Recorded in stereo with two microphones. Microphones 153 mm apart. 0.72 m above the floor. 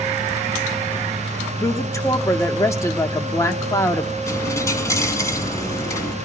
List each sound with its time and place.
1.6 s a woman speaking: 20° left (ahead or behind), 1.2 m
4.3 s a dropped coin: 20° left (ahead or behind), 1.6 m